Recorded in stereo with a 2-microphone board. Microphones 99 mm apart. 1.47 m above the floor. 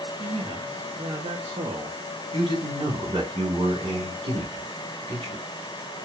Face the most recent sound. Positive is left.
turn(degrees=-60)  # may be behind; listen again after turning